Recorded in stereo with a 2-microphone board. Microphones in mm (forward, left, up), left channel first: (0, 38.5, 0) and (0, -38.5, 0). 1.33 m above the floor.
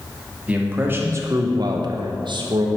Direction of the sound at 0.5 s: 15° right (ahead or behind).